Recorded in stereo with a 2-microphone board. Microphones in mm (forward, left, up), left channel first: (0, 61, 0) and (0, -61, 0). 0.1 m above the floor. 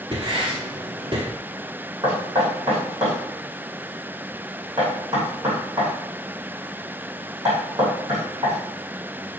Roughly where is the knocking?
Right.